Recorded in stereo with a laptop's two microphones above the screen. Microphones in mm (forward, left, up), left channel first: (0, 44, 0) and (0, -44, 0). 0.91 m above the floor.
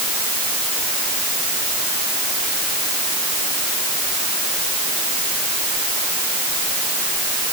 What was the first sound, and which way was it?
Only background noise.